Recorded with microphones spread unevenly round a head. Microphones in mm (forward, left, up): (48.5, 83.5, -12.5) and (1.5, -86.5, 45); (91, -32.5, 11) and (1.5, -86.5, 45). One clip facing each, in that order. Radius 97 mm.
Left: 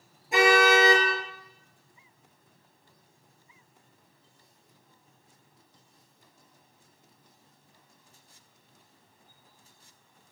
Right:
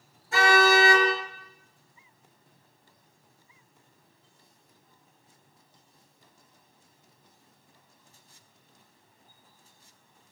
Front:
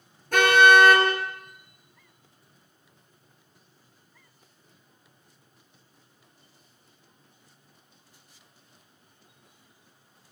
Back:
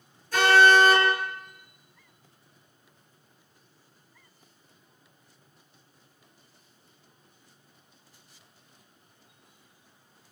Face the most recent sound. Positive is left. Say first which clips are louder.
# left 1 dB, front 1 dB
turn(degrees=0)